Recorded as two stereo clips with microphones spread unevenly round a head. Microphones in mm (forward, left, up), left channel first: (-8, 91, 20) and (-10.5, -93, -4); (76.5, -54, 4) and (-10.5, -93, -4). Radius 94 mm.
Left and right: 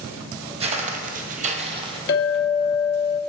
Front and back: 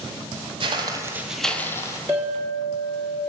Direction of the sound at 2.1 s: 125° left.